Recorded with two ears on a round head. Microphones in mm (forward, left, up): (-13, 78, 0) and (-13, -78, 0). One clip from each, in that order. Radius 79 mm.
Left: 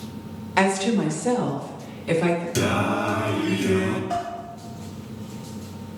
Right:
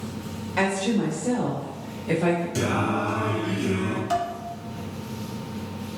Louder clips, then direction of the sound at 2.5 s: Left 2 dB; 25° left (ahead or behind).